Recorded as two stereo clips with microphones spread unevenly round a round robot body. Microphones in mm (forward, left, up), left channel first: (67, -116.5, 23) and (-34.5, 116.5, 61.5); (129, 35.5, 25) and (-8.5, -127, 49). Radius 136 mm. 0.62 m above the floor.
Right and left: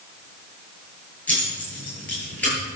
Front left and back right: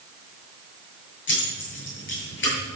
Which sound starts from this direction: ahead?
Keys jangling, at 1.3 s.